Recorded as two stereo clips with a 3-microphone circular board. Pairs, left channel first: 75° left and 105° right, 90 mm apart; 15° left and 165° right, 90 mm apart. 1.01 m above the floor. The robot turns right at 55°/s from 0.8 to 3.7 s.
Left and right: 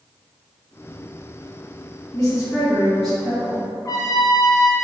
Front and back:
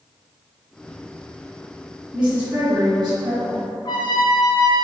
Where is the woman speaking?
110° left, 1.6 m; by 3.6 s 165° right, 1.6 m.